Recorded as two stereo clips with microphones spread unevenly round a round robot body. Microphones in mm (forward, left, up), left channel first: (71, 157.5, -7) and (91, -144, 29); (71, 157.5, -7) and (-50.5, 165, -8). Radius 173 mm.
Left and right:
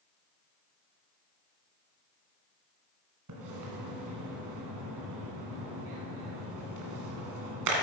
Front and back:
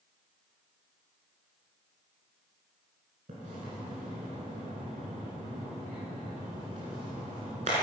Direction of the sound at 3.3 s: 130° right.